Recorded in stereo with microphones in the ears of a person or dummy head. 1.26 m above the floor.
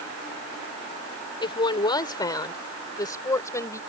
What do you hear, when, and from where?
1.4 s a woman speaking: 25° left (ahead or behind); by 3.8 s 15° left (ahead or behind)